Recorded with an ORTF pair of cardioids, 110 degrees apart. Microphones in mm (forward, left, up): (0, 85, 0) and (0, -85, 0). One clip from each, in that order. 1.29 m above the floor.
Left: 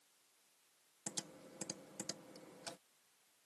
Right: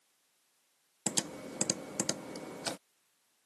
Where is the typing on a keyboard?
65° right.